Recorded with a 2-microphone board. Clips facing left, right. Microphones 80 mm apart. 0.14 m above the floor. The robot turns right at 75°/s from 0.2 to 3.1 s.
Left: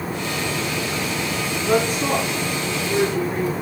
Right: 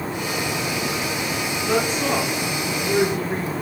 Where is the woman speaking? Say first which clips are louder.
Left 2 dB; 145° left, 1.9 m; by 3.5 s 105° right, 1.9 m.